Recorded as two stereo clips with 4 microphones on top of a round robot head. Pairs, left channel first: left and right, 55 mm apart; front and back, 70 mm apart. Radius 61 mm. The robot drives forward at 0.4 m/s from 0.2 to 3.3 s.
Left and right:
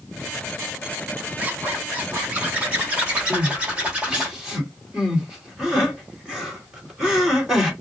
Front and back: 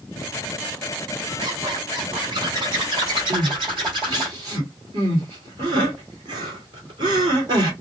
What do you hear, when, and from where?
1.4 s a zipper: 145° right, 1.6 m; by 4.3 s 160° right, 2 m
3.3 s crying: 165° right, 2 m